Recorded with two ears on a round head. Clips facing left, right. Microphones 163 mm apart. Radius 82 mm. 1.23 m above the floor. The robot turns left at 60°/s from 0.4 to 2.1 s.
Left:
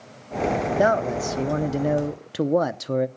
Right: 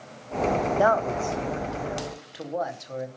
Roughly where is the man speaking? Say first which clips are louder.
Left 3 dB; behind left.